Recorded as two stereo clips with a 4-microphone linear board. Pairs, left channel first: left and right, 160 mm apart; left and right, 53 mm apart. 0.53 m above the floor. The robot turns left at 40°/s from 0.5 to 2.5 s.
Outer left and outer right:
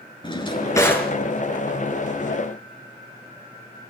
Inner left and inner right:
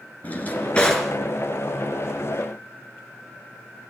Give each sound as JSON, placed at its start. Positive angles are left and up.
{"t": 0.2, "sound": "a drawer", "side_deg": 30, "distance_m": 4.0}